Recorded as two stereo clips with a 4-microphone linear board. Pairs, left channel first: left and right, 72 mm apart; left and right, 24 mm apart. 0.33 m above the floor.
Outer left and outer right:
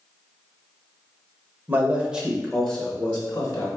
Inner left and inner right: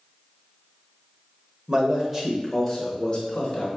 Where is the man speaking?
30° right (ahead or behind), 0.9 m; by 3.7 s 40° left (ahead or behind), 1.0 m.